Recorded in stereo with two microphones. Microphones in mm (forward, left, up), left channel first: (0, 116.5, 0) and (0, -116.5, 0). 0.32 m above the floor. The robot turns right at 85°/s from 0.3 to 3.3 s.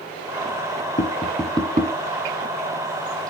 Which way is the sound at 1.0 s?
30° left (ahead or behind).